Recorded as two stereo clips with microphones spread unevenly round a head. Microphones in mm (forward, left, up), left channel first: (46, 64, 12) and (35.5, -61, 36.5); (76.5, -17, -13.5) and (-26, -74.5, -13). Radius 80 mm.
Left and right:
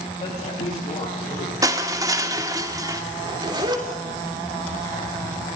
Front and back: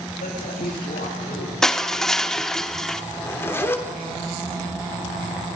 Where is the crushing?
55° right, 1.3 m.